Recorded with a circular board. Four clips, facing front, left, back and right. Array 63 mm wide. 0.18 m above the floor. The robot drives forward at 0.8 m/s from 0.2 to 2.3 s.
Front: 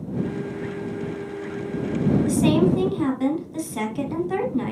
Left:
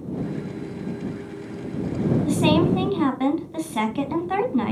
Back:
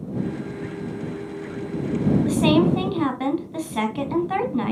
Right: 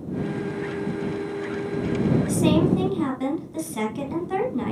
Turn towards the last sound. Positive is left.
turn(degrees=140)